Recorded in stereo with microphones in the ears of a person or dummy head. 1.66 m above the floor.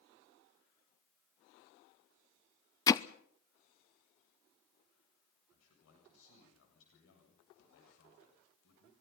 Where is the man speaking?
80° left, 8 m.